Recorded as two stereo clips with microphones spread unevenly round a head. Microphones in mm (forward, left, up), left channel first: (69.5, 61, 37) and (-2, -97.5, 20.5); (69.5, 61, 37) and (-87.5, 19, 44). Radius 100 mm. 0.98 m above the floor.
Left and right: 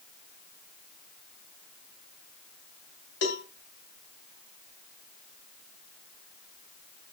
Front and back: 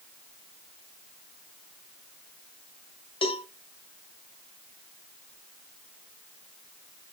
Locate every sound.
3.2 s a cowbell: 70° left, 1.5 m